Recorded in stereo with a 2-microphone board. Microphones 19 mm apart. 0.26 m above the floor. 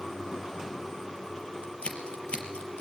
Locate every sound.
1.6 s scissors: 80° left, 4 m